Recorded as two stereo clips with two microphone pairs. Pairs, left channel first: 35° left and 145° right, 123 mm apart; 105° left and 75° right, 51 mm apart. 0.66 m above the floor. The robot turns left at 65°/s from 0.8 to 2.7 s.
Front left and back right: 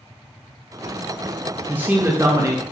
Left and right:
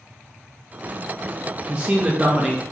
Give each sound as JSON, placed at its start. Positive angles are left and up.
{"t": 1.7, "sound": "a man speaking", "azimuth_deg": -95, "distance_m": 0.6}